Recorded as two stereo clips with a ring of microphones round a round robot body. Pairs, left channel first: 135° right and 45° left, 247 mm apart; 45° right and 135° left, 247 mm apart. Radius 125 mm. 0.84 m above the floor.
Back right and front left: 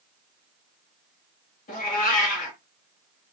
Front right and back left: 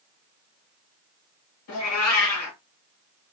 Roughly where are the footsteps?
I don't hear footsteps.